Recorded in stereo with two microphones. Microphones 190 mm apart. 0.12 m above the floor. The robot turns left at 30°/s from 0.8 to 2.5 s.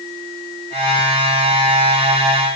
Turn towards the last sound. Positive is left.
No sound to turn to.